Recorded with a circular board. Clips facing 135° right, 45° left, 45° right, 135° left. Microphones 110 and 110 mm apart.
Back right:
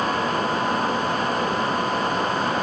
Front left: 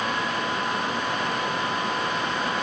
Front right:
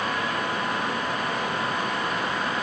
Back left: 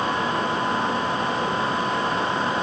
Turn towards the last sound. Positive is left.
No sound to turn to.